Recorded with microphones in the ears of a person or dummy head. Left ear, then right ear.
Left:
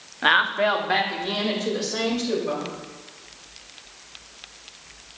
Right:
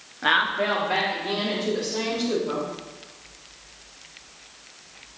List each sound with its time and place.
0.2 s a woman speaking: 20° left (ahead or behind), 0.6 m; by 2.7 s 75° left (ahead or behind), 3.5 m